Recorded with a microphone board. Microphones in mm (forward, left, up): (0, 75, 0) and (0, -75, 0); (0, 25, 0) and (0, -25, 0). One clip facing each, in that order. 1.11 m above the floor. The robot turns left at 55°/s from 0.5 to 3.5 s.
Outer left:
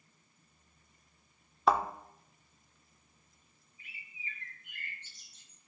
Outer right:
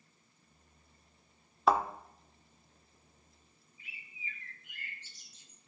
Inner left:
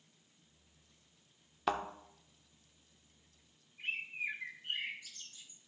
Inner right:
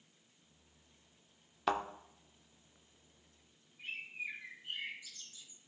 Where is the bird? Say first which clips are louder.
Even, inner left 4 dB; 55° left (ahead or behind), 1.4 m.